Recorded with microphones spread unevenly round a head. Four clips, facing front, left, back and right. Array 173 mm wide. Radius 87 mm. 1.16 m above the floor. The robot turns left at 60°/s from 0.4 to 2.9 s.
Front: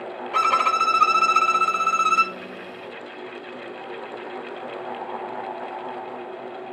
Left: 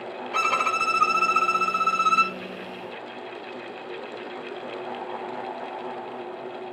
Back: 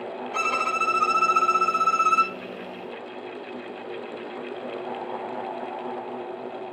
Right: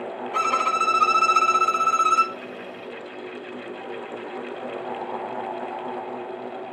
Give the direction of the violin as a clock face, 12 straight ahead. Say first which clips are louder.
Right 2 dB, front 6 dB; 11 o'clock.